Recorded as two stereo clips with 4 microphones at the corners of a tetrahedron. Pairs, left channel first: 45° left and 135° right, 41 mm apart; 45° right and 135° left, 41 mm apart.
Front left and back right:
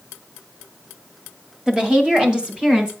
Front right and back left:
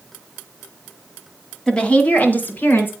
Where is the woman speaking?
95° right, 1.6 m; by 2.9 s 70° right, 2.5 m.